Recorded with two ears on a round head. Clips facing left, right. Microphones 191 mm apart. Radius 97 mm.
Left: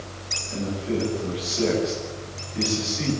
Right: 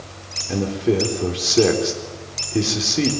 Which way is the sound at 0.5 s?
85° right.